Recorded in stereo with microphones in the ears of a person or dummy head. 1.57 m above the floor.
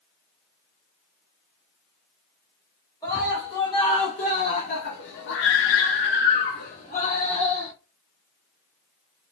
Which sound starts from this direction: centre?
A scream, at 3.0 s.